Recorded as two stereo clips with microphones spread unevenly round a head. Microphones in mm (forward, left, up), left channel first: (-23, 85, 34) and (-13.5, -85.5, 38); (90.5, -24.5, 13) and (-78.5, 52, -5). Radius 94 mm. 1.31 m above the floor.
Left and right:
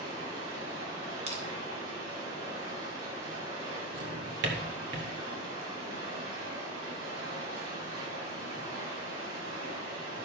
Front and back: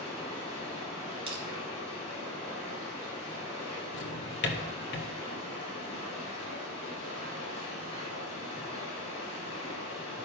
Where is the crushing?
140° right, 2.5 m.